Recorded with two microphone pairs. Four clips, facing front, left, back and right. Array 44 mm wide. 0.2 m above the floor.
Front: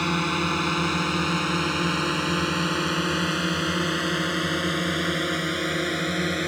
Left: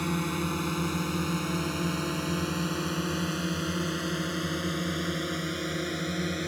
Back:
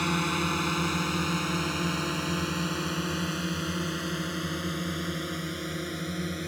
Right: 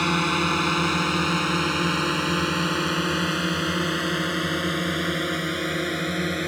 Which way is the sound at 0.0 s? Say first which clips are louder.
Right 8 dB, front 3 dB; 70° right.